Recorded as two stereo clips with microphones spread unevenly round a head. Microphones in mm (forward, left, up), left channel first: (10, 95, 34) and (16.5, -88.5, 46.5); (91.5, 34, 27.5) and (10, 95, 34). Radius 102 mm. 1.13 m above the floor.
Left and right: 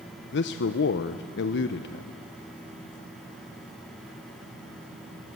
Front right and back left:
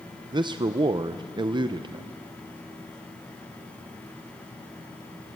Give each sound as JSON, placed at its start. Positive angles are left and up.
{"t": 0.3, "sound": "a man speaking", "azimuth_deg": 100, "distance_m": 0.7}